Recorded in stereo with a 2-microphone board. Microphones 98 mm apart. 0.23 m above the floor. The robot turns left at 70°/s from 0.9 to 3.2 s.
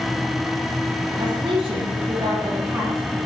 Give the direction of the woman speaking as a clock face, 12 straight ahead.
2 o'clock.